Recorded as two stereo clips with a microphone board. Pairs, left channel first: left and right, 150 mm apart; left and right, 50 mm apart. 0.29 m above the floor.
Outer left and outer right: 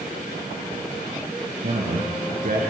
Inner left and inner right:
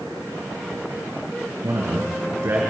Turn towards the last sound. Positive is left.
turn(degrees=-60)  # may be behind; listen again after turning